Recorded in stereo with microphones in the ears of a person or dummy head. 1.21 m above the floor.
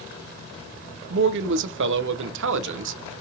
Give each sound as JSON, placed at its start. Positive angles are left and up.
{"t": 1.1, "sound": "a man speaking", "side_deg": -75, "distance_m": 0.5}